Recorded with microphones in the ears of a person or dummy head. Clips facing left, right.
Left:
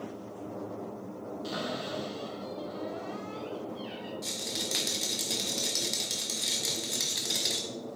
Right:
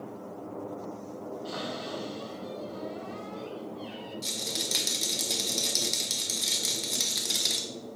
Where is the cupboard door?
45° left (ahead or behind), 3.5 m.